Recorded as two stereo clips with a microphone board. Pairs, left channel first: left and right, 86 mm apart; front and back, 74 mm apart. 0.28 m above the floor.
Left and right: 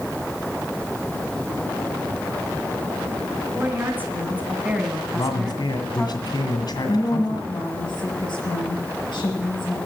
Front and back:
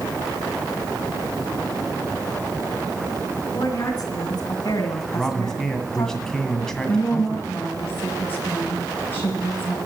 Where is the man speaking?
80° left, 2 m.